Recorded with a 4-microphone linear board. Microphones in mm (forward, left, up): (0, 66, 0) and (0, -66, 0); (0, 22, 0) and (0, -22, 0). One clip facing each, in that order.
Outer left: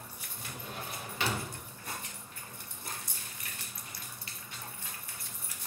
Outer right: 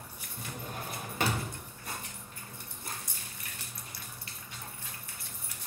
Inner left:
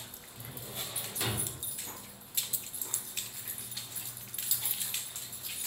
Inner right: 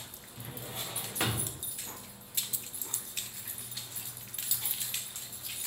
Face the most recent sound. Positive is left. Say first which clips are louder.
# outer right 3 dB, inner right 2 dB
turn(degrees=-45)  # may be behind; listen again after turning